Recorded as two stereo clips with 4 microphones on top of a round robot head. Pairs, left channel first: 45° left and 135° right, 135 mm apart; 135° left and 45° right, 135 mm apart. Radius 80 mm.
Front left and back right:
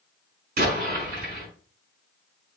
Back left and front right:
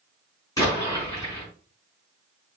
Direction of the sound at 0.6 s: 160° right.